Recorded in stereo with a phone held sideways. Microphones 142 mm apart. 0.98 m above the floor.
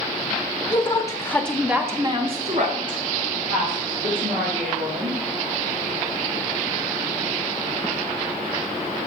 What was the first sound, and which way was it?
A woman speaking, 35° left (ahead or behind).